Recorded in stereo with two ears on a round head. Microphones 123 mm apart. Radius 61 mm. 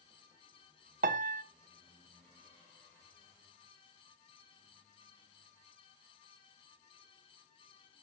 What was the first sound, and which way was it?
A piano, 60° right (ahead or behind).